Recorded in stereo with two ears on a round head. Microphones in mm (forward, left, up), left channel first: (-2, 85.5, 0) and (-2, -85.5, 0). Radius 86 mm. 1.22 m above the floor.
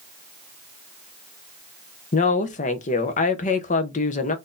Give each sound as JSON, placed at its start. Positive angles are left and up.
{"t": 2.1, "sound": "a woman speaking", "side_deg": 40, "distance_m": 0.7}